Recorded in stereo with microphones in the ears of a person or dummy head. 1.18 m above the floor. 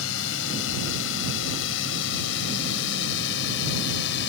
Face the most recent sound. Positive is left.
turn(degrees=65)  # may be behind; listen again after turning